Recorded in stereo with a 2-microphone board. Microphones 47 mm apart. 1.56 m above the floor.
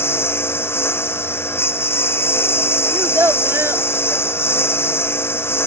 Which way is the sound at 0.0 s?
60° left (ahead or behind).